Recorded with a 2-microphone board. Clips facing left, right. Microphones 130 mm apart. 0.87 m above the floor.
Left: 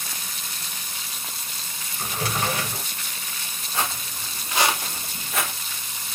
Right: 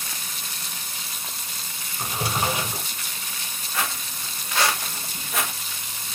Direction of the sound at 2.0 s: 15° right (ahead or behind).